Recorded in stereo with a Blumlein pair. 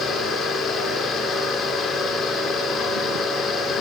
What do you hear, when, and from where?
0.0 s a fan: 20° left, 3.5 m